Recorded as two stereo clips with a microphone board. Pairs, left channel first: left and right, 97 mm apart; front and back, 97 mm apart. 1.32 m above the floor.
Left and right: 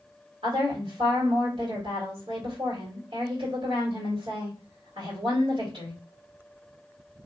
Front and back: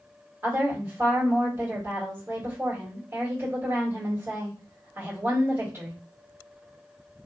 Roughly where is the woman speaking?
Behind right.